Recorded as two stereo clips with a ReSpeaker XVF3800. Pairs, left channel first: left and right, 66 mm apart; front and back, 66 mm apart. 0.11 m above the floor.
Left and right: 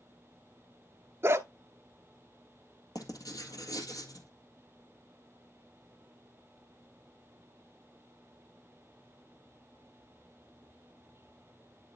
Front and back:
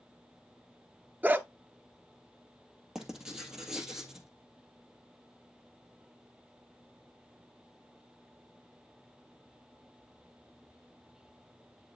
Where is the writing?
100° left, 1.8 m.